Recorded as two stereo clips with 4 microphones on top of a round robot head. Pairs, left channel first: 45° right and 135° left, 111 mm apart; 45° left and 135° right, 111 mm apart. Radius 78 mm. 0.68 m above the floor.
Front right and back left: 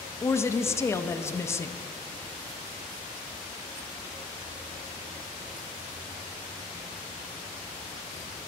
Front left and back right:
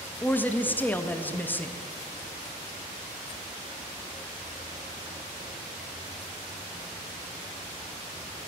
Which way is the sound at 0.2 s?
10° right.